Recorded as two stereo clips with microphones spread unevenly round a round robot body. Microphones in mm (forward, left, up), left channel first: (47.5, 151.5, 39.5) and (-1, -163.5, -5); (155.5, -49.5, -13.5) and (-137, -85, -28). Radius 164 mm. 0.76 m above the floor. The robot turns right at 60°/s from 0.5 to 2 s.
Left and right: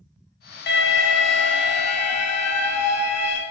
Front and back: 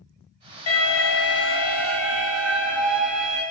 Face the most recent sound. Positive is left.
turn(degrees=105)